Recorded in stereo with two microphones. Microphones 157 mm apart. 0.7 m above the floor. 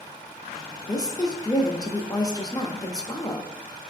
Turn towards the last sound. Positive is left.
turn(degrees=25)  # may be behind; listen again after turning